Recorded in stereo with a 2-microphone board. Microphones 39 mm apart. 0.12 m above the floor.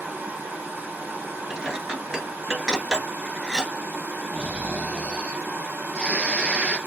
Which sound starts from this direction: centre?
Dishes clattering, at 1.5 s.